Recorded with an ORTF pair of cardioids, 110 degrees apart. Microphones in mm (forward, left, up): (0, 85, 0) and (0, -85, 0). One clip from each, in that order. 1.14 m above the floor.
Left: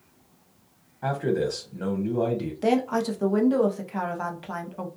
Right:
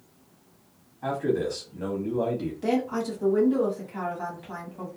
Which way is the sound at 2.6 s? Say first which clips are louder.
Left 4 dB; 40° left.